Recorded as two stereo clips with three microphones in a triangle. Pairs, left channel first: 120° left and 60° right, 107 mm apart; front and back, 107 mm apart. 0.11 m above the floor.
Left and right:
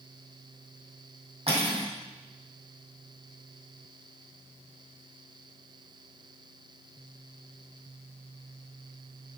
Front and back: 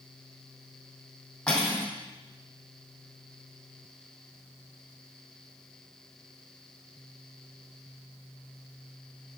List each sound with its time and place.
1.5 s cutlery clinking: 80° right, 2.5 m